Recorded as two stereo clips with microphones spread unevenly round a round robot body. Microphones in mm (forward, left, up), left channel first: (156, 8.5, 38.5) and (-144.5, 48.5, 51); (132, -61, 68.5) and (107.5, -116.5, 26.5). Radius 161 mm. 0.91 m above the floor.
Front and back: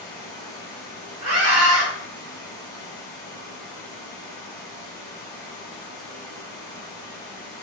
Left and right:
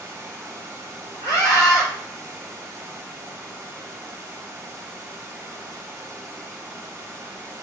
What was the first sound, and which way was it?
Running water, 85° right.